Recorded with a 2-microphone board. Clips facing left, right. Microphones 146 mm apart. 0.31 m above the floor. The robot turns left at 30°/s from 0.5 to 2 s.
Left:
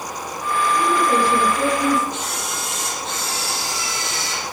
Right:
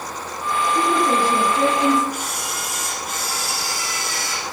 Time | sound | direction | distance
0.8 | a woman speaking | 140° right | 6 m
2.1 | a camera shutter | 25° left (ahead or behind) | 5.5 m